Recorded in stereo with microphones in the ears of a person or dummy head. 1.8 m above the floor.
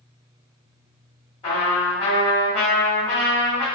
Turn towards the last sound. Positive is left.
turn(degrees=30)  # may be behind; listen again after turning